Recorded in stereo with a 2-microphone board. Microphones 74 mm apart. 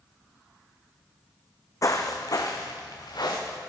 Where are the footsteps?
50° left (ahead or behind), 1.0 m; by 3.6 s 65° left (ahead or behind), 1.9 m.